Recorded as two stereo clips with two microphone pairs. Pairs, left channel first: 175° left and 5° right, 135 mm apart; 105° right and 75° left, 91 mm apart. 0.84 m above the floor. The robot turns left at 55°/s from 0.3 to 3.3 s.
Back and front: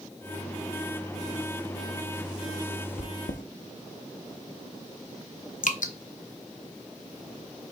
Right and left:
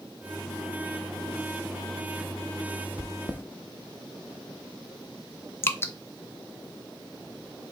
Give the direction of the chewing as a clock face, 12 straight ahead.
5 o'clock.